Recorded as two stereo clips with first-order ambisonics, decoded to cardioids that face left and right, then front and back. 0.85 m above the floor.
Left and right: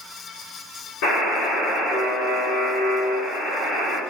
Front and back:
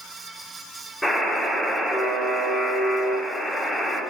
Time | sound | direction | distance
1.0 | a buzzer | 85° left | 2.0 m